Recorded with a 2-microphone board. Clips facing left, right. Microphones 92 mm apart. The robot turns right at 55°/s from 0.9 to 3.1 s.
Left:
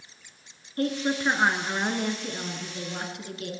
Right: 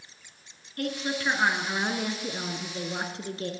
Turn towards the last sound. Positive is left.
turn(degrees=-115)